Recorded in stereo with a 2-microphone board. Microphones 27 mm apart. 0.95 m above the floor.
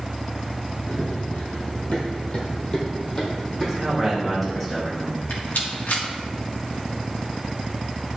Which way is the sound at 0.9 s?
65° left (ahead or behind).